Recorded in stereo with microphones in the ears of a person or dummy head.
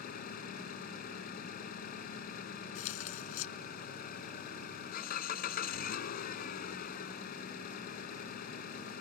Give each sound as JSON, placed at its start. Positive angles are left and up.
{"t": 0.0, "sound": "an engine running", "side_deg": 55}
{"t": 2.8, "sound": "tearing paper", "side_deg": 75}